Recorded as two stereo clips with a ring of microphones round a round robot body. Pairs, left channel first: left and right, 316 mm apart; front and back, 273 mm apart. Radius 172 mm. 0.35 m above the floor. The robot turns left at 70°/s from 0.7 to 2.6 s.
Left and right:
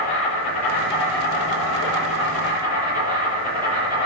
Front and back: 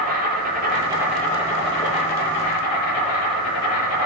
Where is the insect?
120° left, 7.5 m; by 4.1 s 15° right, 7.5 m.